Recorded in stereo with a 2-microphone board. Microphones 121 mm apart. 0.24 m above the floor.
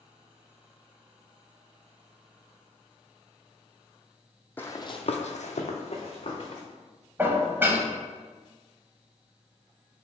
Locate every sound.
4.6 s running footsteps: 15° left (ahead or behind), 0.7 m; by 6.6 s 50° left (ahead or behind), 1.8 m
7.2 s dishes clattering: 20° right (ahead or behind), 0.6 m